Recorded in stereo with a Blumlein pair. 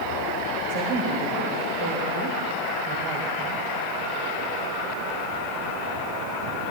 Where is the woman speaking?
50° right, 2.5 m.